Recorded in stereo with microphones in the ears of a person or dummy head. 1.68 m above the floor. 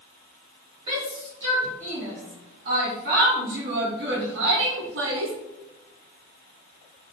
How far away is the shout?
About 4 m.